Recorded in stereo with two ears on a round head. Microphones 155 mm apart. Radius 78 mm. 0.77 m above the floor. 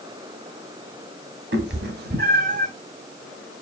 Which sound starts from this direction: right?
A cat meowing, at 1.5 s.